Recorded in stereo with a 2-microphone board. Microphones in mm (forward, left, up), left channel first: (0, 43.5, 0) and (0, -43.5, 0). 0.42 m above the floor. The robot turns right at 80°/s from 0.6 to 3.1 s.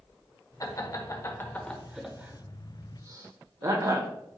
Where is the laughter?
40° left (ahead or behind), 1.3 m; by 4.1 s 40° right (ahead or behind), 1.3 m.